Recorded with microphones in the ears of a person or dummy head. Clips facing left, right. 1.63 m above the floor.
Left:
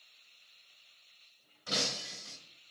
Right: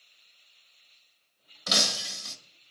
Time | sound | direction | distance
1.7 | breaking glass | 70° right (ahead or behind) | 2 m